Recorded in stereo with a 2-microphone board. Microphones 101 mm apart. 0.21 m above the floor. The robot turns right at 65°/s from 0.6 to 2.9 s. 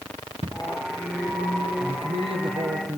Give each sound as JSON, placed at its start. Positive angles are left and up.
{"t": 0.4, "sound": "footsteps", "side_deg": -85, "distance_m": 1.8}
{"t": 1.8, "sound": "a man speaking", "azimuth_deg": -100, "distance_m": 4.0}